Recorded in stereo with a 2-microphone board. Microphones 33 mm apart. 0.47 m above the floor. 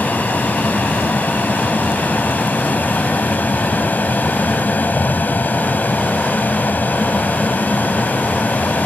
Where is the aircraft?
55° left (ahead or behind); by 8.9 s 60° left (ahead or behind).